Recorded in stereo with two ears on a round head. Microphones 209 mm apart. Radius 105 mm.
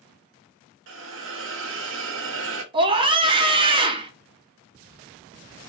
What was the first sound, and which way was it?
A hiss, 55° right (ahead or behind).